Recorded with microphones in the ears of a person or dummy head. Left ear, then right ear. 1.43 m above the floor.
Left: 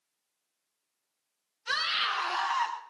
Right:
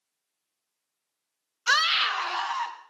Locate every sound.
1.7 s a scream: 45° right (ahead or behind), 0.8 m; by 2.8 s 10° left (ahead or behind), 1.0 m